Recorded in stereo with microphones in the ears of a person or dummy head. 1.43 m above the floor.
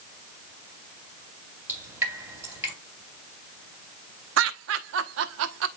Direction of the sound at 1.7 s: 15° right (ahead or behind).